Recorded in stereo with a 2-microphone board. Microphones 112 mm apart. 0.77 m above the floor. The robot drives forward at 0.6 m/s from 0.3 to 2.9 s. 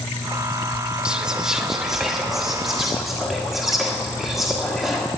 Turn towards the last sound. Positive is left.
turn(degrees=-5)  # may be behind; listen again after turning